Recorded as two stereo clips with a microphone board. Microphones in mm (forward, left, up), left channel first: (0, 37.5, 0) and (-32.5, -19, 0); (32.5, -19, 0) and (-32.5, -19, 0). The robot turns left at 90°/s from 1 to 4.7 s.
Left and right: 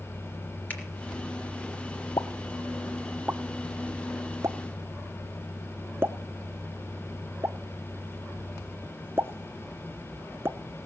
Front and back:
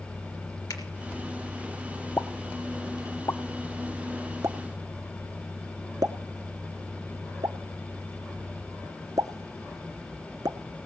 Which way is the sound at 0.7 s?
5° right.